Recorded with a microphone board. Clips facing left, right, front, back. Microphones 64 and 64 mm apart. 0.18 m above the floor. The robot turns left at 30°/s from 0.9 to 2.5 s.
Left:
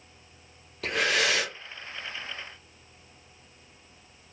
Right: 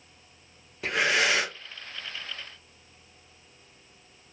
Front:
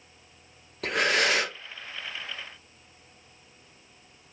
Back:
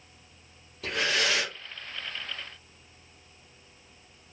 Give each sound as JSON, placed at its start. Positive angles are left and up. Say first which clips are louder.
{"t": 0.8, "sound": "breathing", "louder": "right 1 dB, front 3 dB", "azimuth_deg": -20, "distance_m": 1.2}